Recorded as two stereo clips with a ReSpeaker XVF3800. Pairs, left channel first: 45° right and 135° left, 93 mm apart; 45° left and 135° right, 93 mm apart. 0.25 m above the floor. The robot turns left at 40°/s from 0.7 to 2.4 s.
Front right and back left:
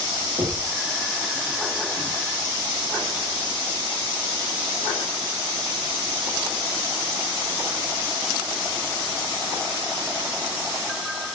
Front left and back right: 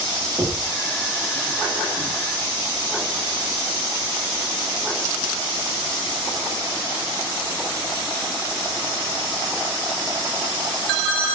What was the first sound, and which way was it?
Knocking, 165° left.